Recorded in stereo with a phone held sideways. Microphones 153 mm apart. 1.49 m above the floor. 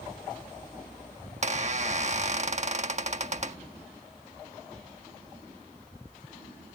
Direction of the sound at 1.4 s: 50° right (ahead or behind).